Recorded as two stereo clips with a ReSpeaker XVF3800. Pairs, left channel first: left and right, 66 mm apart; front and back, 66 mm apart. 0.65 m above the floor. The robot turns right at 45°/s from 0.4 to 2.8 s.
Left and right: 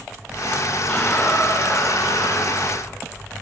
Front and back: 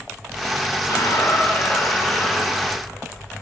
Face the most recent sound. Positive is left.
turn(degrees=100)